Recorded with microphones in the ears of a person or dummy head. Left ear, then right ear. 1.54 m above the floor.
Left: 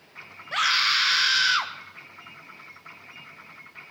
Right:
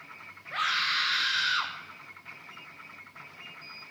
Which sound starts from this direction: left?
A scream, at 0.5 s.